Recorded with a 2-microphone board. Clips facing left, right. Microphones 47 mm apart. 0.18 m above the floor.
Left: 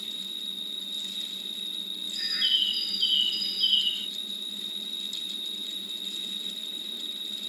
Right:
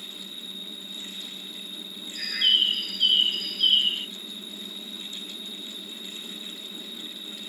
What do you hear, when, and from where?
0.0 s an insect: 60° right (ahead or behind), 2 m
2.1 s a bird: 40° right (ahead or behind), 1.7 m